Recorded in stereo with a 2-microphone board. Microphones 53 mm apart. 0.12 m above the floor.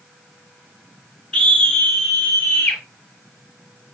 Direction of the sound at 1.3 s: 20° left (ahead or behind).